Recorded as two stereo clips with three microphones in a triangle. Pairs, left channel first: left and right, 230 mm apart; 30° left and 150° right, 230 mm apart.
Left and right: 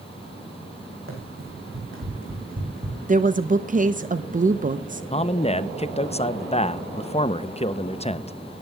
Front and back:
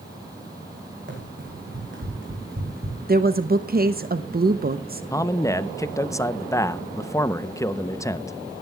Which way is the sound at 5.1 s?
85° left.